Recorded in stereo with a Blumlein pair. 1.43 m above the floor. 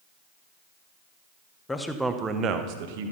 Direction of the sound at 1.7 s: 10° left.